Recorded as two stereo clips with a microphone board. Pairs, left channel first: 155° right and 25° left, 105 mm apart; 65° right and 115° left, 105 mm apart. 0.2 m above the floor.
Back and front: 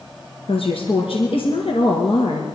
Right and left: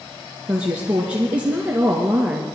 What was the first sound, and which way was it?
A woman speaking, 170° right.